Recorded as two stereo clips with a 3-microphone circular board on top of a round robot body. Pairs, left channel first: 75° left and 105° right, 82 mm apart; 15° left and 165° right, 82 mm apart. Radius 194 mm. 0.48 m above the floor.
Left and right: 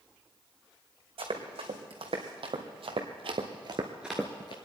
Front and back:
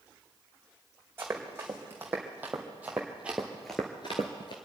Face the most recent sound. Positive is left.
turn(degrees=50)